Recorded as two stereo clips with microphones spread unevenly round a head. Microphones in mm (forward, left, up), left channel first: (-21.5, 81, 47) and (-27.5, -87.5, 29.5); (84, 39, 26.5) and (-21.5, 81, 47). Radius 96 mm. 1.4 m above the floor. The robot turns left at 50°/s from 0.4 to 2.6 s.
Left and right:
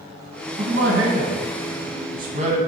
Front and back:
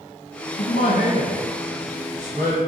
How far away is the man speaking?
About 1.1 m.